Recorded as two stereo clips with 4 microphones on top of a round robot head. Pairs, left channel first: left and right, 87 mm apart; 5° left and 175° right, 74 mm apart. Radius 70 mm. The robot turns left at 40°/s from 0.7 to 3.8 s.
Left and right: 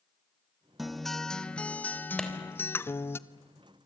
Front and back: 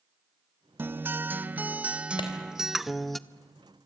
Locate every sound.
0.8 s a guitar: 175° right, 0.8 m; by 3.2 s 90° left, 0.8 m
2.2 s a clap: 5° left, 3.5 m